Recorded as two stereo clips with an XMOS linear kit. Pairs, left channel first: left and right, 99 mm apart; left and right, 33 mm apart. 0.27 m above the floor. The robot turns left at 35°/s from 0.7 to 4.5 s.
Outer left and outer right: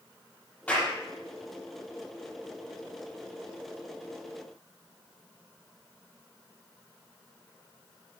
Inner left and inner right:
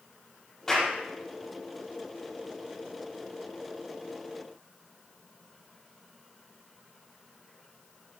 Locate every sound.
0.7 s a clap: 15° left (ahead or behind), 8 m; by 0.9 s 20° left (ahead or behind), 8 m